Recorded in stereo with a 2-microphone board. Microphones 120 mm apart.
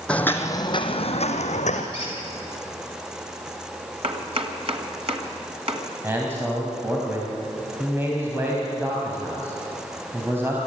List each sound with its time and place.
0.1 s footsteps: 10° left (ahead or behind), 1.8 m; by 1.8 s 75° left (ahead or behind), 2.5 m
1.9 s a squeak: 45° left (ahead or behind), 7.5 m
4.0 s chopping: 55° right (ahead or behind), 2.0 m
6.0 s a man speaking: 20° right (ahead or behind), 3.5 m